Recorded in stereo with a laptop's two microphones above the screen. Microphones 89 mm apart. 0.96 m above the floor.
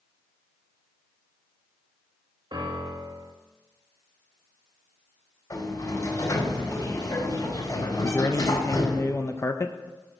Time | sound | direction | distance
2.5 | a piano | 60° right (ahead or behind) | 1.8 m
5.5 | a sliding door | 45° left (ahead or behind) | 4.5 m
8.0 | a man speaking | 30° left (ahead or behind) | 0.6 m